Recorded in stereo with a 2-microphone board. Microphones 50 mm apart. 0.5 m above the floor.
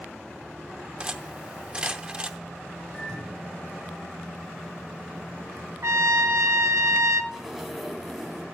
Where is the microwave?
20° left (ahead or behind), 7.5 m.